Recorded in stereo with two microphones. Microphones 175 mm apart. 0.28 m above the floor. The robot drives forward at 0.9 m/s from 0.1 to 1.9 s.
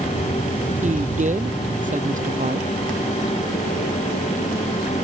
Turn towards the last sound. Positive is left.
turn(degrees=-50)  # may be behind; listen again after turning